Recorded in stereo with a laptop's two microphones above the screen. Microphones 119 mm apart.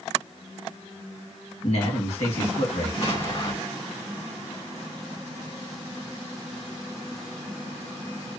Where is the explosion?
60° left (ahead or behind), 1.8 m.